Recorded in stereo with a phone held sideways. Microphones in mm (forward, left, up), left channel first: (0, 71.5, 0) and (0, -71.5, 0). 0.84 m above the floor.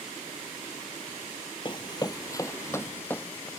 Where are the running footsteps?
35° left (ahead or behind); by 3.5 s 10° left (ahead or behind).